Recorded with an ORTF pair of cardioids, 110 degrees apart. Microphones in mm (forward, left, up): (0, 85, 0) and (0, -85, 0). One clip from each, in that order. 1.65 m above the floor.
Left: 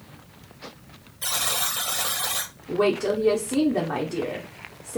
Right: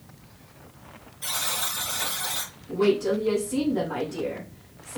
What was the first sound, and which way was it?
A buzzer, 70° left.